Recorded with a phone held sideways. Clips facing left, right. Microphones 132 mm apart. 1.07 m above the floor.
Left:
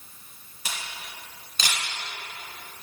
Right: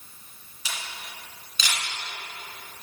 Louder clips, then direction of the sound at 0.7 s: Even; 55° left (ahead or behind).